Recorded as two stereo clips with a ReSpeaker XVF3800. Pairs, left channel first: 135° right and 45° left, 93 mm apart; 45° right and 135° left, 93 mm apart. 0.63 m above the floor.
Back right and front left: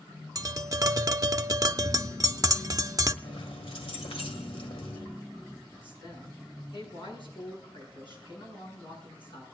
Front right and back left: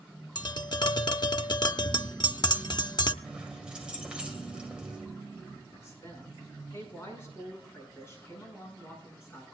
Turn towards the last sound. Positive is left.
turn(degrees=-110)